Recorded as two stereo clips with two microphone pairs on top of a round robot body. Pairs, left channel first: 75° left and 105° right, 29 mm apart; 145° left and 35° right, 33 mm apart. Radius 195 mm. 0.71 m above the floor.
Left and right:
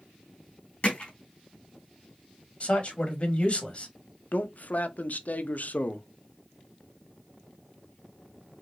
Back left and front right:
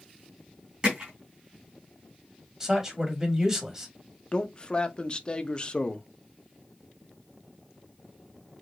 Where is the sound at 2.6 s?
30° left, 2 m.